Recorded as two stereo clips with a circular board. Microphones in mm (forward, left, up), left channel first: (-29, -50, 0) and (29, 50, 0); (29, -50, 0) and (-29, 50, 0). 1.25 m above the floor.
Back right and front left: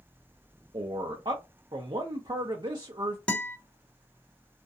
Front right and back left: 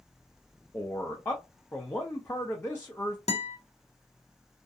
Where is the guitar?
40° right, 0.7 m.